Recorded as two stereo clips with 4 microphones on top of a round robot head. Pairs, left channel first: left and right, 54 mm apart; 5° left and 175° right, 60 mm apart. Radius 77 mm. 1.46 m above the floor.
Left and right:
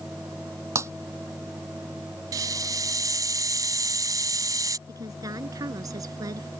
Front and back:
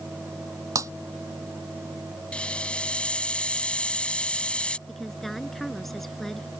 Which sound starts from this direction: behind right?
Breaking glass, at 0.8 s.